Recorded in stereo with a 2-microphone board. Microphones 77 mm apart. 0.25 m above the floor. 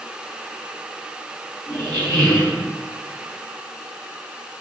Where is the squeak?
55° right (ahead or behind), 1.8 m.